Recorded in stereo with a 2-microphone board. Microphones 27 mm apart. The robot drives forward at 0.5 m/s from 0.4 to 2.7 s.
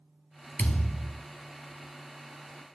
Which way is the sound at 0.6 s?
80° left.